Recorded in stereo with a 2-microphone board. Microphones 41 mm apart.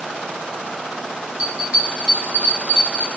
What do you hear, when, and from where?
1.4 s a bell: 35° right (ahead or behind), 1.7 m